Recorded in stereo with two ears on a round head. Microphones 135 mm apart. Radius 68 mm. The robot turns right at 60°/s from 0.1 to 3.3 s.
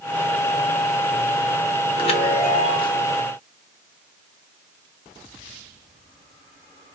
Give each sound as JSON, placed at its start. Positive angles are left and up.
{"t": 2.0, "sound": "a chime", "azimuth_deg": 70, "distance_m": 1.0}